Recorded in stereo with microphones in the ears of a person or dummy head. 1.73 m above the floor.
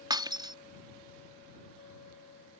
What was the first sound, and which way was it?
Breaking glass, 20° right (ahead or behind).